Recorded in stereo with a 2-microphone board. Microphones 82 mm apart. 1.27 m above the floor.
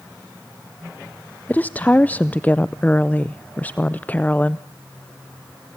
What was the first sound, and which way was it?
A woman speaking, 20° left (ahead or behind).